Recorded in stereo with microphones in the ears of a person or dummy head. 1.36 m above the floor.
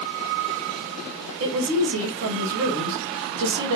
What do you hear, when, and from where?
1.4 s a woman speaking: 75° right (ahead or behind), 1.8 m